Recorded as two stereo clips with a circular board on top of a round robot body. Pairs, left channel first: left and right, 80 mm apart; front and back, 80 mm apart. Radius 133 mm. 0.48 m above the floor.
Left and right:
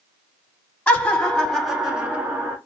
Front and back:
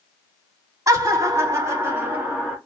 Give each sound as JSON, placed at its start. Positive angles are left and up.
{"t": 0.9, "sound": "laughter", "azimuth_deg": 150, "distance_m": 1.9}